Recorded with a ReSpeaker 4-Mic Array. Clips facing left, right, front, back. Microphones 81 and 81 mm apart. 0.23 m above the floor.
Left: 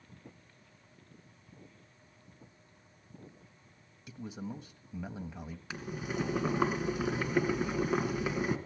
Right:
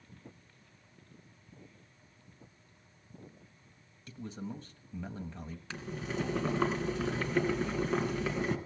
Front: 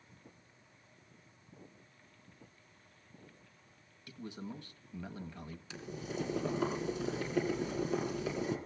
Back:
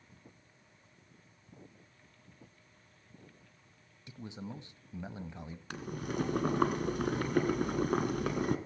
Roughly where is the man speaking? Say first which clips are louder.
Even, even; behind left.